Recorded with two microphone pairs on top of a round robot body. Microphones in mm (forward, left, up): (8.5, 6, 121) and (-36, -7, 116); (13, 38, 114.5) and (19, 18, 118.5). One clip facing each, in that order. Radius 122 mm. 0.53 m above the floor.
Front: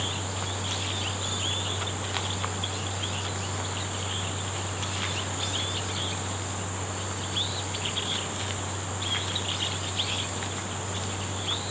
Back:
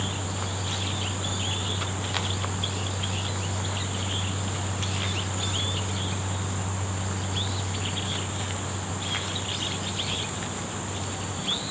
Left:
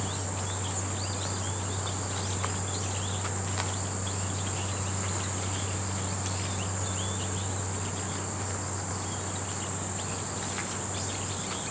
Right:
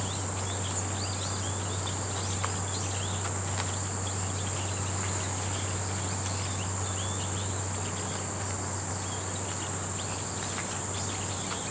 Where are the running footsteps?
I don't hear running footsteps.